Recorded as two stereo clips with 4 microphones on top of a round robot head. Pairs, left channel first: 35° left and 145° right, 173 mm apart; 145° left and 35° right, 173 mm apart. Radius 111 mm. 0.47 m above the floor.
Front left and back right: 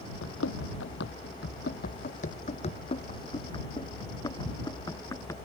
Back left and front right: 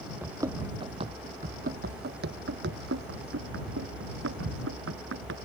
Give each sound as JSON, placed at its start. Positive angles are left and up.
{"t": 0.2, "sound": "running footsteps", "azimuth_deg": 40}